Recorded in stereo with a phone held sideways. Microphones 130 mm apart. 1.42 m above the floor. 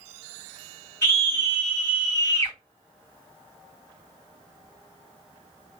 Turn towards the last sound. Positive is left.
turn(degrees=20)  # may be behind; listen again after turning